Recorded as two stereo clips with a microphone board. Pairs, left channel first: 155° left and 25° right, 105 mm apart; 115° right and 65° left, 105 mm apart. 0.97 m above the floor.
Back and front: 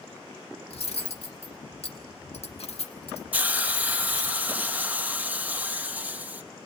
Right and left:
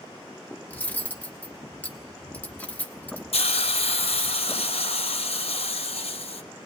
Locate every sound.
0.7 s cutlery clinking: 175° left, 1.1 m
3.3 s a hiss: 95° right, 0.7 m